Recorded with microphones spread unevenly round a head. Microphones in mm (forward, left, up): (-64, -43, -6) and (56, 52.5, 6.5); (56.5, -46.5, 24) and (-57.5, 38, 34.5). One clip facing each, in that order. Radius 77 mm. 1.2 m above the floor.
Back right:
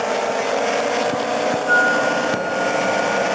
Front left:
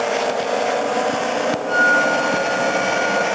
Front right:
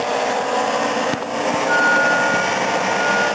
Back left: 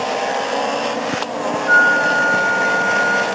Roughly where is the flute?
Behind left.